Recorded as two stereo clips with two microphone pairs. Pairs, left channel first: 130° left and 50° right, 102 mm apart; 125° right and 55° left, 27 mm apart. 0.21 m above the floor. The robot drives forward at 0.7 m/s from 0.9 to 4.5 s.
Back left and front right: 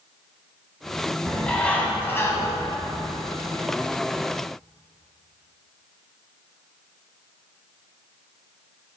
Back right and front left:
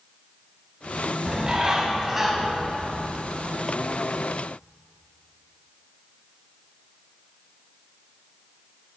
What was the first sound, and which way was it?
A bird, 45° left.